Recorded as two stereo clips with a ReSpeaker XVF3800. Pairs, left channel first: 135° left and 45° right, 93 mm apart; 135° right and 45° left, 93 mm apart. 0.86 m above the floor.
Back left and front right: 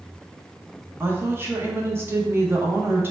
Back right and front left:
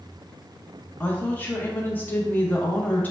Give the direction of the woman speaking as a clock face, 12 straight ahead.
3 o'clock.